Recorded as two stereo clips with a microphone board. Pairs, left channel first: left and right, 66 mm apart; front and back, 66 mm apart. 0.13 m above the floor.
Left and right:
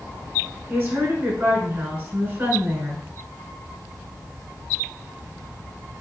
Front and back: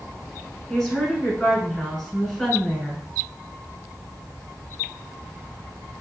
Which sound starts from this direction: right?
A woman speaking, at 0.7 s.